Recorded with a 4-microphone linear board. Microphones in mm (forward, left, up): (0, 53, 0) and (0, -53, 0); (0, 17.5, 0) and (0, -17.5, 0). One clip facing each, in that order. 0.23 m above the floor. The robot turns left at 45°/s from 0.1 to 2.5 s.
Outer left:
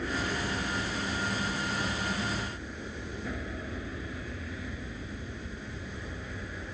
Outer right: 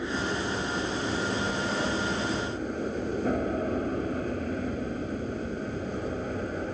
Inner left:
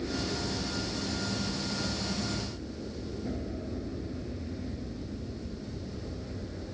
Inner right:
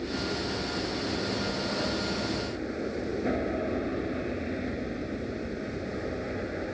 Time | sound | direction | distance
0.0 | an aircraft | 15° right | ?